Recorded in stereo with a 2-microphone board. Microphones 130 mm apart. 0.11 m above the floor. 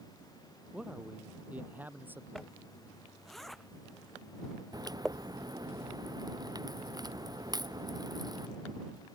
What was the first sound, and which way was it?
A man speaking, 5° right (ahead or behind).